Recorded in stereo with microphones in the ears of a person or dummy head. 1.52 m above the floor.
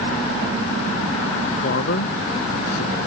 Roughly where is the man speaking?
Left.